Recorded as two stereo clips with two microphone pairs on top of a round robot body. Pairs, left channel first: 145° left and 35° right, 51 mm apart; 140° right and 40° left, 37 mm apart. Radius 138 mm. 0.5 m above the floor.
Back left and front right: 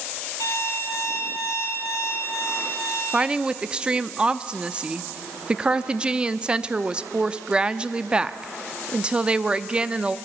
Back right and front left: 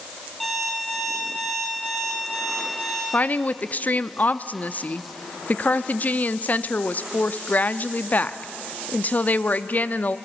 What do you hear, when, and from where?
0.4 s an alarm clock: 140° left, 7 m
3.1 s a woman speaking: 110° right, 0.8 m